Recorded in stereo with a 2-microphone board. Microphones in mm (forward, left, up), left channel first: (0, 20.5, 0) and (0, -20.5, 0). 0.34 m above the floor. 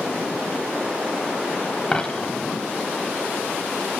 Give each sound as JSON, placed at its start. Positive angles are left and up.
{"t": 1.9, "sound": "a dropped coin", "side_deg": 15, "distance_m": 1.0}